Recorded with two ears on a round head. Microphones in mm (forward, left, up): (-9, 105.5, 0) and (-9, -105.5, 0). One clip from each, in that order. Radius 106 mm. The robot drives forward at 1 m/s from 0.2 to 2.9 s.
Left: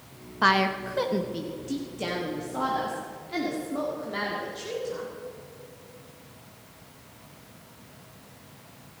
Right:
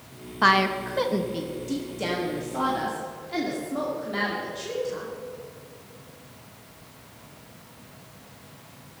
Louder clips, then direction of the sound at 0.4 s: Right 2 dB; centre (ahead or behind).